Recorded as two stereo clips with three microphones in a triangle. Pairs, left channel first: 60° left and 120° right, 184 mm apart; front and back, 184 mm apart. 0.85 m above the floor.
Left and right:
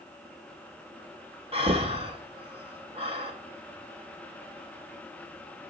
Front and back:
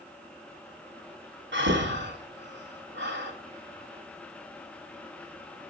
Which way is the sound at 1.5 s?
175° right.